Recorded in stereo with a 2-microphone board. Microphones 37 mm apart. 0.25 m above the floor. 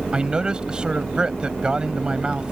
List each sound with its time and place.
0.1 s a man speaking: 25° right (ahead or behind)